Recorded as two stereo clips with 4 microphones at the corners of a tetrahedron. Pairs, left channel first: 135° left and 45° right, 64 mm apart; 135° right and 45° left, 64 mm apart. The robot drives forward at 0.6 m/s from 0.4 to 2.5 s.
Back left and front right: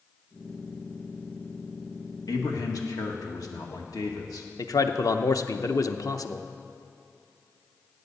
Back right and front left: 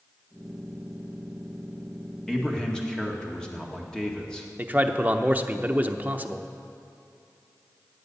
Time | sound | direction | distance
2.3 | a man speaking | 145° left | 1.7 m
4.6 | a man speaking | 110° left | 0.7 m